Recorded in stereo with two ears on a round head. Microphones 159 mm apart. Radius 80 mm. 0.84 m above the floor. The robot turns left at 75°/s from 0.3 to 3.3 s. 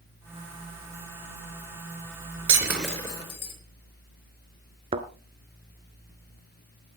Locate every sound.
2.5 s breaking glass: 30° right (ahead or behind), 4.5 m; by 3.5 s 35° left (ahead or behind), 4.5 m
4.9 s a thud: 30° right (ahead or behind), 0.9 m